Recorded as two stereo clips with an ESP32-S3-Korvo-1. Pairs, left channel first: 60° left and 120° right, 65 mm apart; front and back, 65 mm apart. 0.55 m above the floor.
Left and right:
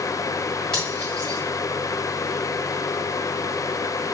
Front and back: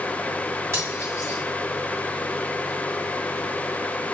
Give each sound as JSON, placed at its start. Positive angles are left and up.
{"t": 0.7, "sound": "cutlery clinking", "azimuth_deg": 140, "distance_m": 1.7}